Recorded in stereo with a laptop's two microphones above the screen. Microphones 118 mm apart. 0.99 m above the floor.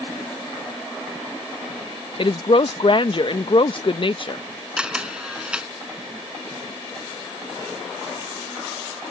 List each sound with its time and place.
2.2 s a woman speaking: 45° left (ahead or behind)
4.8 s a camera shutter: 5° right (ahead or behind)